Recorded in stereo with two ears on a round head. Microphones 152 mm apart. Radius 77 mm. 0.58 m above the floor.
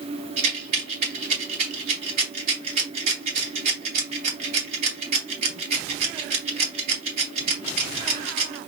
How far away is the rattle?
About 3 m.